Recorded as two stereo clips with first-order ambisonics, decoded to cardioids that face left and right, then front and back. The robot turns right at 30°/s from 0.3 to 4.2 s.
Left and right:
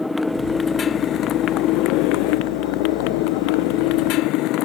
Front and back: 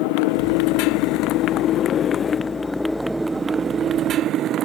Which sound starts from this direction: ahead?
A motorcycle, at 0.0 s.